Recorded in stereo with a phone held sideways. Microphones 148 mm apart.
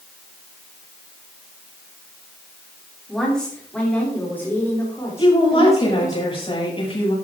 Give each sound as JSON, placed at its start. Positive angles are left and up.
{"t": 3.1, "sound": "a woman speaking", "side_deg": 5, "distance_m": 3.5}
{"t": 5.2, "sound": "a woman speaking", "side_deg": 40, "distance_m": 7.0}